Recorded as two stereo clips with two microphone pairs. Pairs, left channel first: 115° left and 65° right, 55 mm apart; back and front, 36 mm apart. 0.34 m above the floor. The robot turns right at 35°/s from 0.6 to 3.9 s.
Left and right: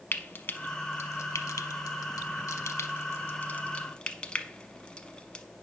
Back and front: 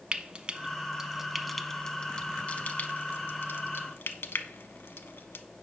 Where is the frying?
65° left, 0.5 m; by 5.5 s 175° right, 0.5 m.